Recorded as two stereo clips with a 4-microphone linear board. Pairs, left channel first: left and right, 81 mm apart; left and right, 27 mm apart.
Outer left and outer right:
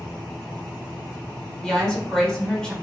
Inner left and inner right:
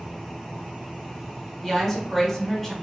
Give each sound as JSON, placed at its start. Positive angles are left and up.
{"t": 1.6, "sound": "a woman speaking", "side_deg": 10, "distance_m": 1.3}